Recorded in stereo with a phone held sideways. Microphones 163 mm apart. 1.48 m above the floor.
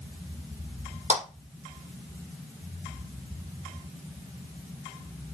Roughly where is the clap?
Right.